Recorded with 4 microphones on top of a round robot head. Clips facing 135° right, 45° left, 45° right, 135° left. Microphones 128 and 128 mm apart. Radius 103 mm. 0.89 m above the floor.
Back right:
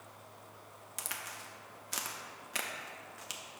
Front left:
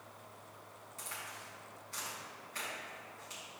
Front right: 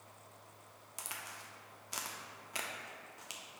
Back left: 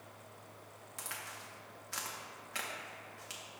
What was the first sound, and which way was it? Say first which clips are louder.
A crack: back right 2 dB, back left 1 dB; 115° right.